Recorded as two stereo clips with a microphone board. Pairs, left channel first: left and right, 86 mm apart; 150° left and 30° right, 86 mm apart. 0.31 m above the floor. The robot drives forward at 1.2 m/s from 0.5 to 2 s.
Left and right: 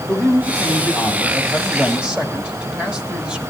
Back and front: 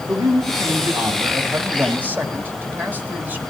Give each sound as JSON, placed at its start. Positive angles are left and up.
{"t": 0.1, "sound": "a man speaking", "azimuth_deg": -5, "distance_m": 2.5}